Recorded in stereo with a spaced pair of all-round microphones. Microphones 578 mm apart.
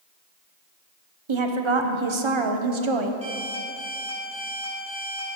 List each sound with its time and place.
1.3 s a woman speaking: 55° right (ahead or behind), 0.8 m
3.2 s an alarm clock: 35° left (ahead or behind), 3 m